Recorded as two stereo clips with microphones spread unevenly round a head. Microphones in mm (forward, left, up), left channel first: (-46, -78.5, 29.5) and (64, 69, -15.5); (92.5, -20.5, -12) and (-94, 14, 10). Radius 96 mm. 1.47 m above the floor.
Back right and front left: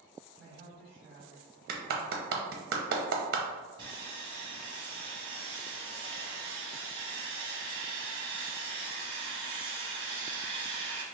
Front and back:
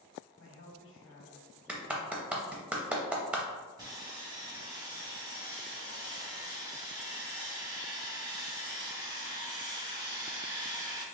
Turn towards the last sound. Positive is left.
turn(degrees=120)